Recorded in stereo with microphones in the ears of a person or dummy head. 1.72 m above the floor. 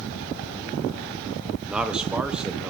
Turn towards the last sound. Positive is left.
turn(degrees=-5)  # may be behind; listen again after turning